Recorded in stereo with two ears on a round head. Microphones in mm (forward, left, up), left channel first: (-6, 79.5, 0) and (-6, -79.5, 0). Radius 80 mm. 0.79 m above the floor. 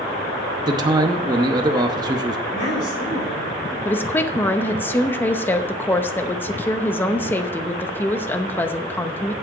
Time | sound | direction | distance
0.7 | a man speaking | 25° right (ahead or behind) | 0.8 m
2.5 | a woman speaking | 55° left (ahead or behind) | 4.5 m
3.9 | a woman speaking | 10° left (ahead or behind) | 0.7 m